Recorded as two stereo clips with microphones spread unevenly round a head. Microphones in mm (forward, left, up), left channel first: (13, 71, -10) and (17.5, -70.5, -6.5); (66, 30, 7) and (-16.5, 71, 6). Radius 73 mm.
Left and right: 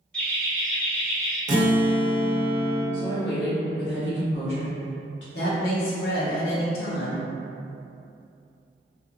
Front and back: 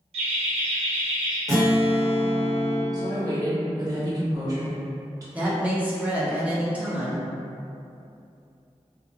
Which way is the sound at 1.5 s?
130° right.